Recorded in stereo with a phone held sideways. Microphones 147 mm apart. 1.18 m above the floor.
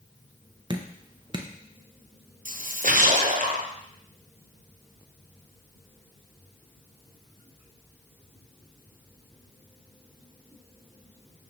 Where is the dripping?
35° right (ahead or behind), 0.7 m.